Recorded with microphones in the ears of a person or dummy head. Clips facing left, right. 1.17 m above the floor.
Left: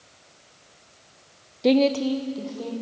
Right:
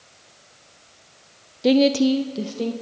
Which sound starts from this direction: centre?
A woman speaking, at 1.6 s.